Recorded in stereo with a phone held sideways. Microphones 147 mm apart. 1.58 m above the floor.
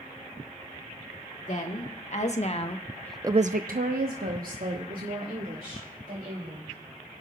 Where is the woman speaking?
60° left (ahead or behind), 2.5 m; by 6.7 s 70° right (ahead or behind), 5 m.